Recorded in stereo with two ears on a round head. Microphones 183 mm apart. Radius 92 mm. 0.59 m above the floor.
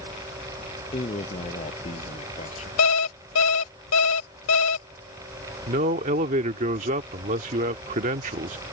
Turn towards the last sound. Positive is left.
turn(degrees=-40)  # may be behind; listen again after turning